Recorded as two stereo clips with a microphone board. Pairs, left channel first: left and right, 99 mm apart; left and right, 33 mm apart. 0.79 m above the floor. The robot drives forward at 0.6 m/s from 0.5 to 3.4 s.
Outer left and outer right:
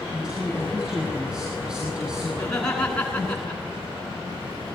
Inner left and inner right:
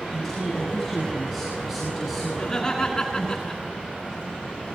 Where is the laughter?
10° left (ahead or behind), 9 m.